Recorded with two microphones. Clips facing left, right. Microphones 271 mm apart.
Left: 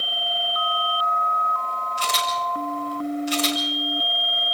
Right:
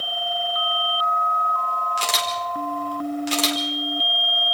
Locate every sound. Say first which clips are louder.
2.0 s a camera shutter: left 1 dB; 85° right, 4.5 m